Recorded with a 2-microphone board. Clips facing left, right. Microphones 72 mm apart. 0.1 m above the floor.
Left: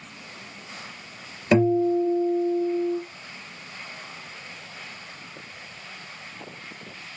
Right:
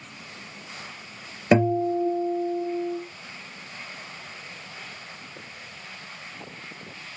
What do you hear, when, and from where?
1.5 s a guitar: 25° right (ahead or behind), 2 m